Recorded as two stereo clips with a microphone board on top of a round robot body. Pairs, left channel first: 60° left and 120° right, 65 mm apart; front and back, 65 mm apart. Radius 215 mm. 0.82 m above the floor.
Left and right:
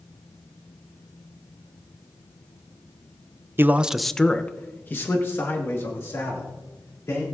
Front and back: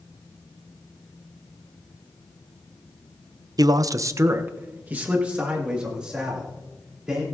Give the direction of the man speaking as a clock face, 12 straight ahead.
6 o'clock.